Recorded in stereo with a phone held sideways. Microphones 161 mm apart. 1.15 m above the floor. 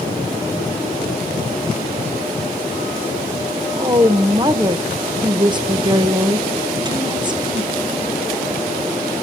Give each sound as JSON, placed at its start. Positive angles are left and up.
{"t": 3.7, "sound": "a woman speaking", "side_deg": -30, "distance_m": 0.6}